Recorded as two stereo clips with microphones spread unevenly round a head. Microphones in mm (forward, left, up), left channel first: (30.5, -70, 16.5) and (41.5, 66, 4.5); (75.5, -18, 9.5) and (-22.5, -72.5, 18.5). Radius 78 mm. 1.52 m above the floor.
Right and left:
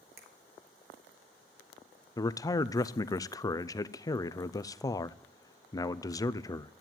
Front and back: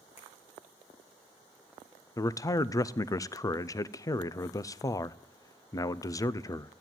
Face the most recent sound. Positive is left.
turn(degrees=-30)